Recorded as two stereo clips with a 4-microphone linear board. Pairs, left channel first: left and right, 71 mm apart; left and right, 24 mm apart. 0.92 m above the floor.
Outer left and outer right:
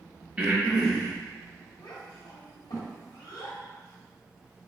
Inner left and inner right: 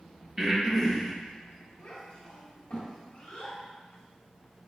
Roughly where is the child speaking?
Left.